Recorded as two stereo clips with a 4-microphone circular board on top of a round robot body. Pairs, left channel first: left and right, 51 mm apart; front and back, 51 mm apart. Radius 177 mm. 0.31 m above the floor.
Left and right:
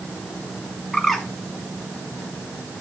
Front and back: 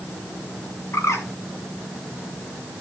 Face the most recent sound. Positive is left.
turn(degrees=0)